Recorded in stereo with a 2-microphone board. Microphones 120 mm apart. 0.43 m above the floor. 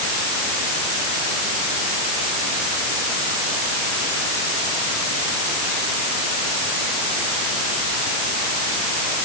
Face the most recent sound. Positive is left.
No sound to turn to.